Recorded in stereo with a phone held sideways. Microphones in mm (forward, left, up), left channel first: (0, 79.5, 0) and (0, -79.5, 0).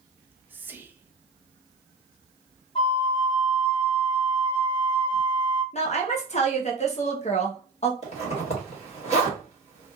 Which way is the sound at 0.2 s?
10° right (ahead or behind).